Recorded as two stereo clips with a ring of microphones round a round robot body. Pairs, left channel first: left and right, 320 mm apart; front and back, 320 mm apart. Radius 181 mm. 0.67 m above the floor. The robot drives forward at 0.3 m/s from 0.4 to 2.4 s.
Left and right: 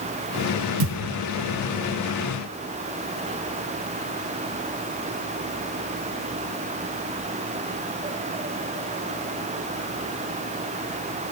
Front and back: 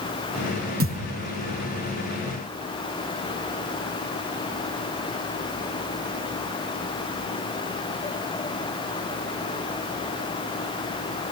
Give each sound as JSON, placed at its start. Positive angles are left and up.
{"t": 0.8, "sound": "a thud", "azimuth_deg": -115, "distance_m": 3.0}